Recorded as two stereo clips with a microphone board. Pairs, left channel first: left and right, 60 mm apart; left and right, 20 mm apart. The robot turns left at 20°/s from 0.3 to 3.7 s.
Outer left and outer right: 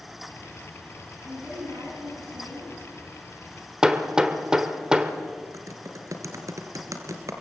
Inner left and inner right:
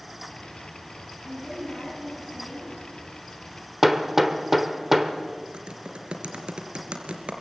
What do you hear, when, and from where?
1.2 s a woman speaking: 40° right, 9 m; by 2.8 s 70° right, 9 m
3.8 s hammering: 10° right (ahead or behind), 1.4 m
5.5 s typing on a keyboard: 60° right (ahead or behind), 2.5 m